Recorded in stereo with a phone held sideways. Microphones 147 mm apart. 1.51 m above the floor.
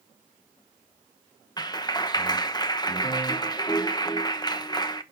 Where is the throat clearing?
I don't hear throat clearing.